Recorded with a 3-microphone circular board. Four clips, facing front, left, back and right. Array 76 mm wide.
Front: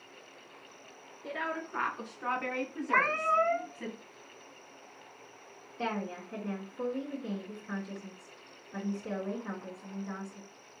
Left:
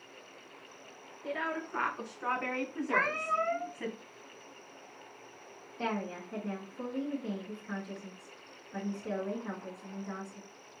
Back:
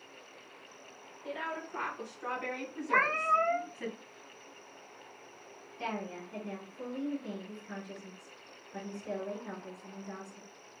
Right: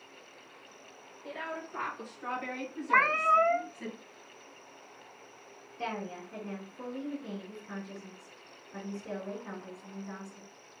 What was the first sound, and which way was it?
A woman speaking, 35° left.